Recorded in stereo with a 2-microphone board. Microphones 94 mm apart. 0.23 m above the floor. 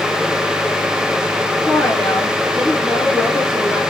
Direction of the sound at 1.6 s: 25° left (ahead or behind).